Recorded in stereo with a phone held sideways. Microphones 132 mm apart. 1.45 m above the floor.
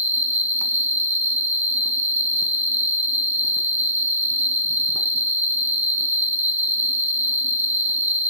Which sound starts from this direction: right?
An insect, at 0.0 s.